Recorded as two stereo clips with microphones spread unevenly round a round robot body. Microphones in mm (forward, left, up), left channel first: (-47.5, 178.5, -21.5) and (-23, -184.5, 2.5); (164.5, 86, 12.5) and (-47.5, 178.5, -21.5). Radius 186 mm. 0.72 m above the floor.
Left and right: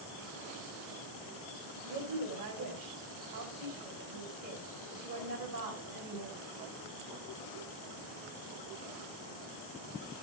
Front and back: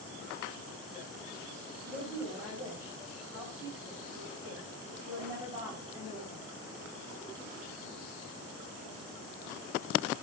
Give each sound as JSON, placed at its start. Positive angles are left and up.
{"t": 1.8, "sound": "a woman speaking", "azimuth_deg": -120, "distance_m": 4.0}